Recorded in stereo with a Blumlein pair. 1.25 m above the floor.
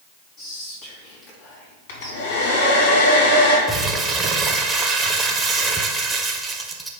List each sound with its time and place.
0.4 s whispering: 15° left, 2.5 m
1.9 s a hair dryer: 55° left, 2 m
3.7 s crumpling: 10° right, 0.9 m